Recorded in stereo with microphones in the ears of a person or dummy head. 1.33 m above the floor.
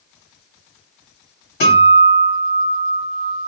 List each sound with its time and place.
1.6 s a guitar: 55° left (ahead or behind), 2.5 m